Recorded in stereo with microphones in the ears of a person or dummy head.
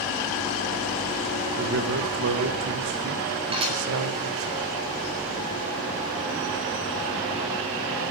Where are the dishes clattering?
35° right (ahead or behind), 4.5 m.